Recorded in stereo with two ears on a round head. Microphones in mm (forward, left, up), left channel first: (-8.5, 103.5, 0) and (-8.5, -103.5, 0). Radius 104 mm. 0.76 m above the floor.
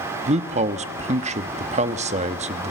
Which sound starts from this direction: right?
A man speaking, at 0.3 s.